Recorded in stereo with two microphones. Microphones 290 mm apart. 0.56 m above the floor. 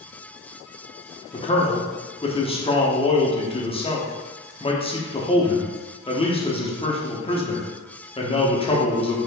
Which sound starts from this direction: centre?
A man speaking, at 1.3 s.